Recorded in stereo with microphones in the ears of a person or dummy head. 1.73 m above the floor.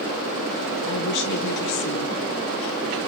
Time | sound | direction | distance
0.8 | a woman speaking | 60° left (ahead or behind) | 1.5 m